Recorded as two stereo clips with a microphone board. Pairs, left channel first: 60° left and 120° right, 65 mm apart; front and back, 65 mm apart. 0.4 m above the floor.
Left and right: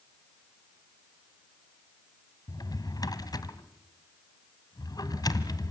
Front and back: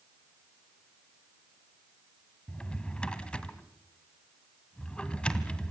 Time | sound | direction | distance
2.5 | a drawer | 75° left | 1.8 m